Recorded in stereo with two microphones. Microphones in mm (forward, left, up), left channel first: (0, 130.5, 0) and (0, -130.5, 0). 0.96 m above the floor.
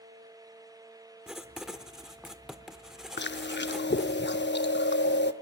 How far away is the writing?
About 0.8 m.